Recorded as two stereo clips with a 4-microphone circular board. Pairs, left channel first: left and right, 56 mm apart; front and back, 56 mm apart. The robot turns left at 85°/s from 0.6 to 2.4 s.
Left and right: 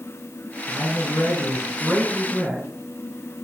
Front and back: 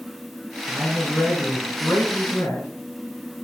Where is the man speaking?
130° left, 4 m; by 2.7 s 15° right, 4 m.